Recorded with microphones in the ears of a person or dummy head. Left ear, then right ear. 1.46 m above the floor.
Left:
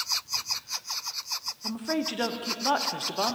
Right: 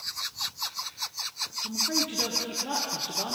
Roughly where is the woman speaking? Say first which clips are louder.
Right 3 dB; left.